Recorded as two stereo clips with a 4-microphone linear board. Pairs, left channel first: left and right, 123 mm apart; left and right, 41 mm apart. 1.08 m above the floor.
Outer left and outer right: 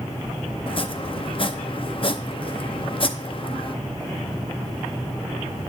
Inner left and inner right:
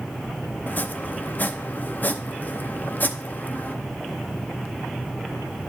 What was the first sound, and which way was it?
Chopping, 45° left (ahead or behind).